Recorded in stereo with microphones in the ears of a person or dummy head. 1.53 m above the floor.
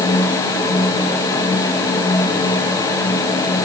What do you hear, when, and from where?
Only background noise.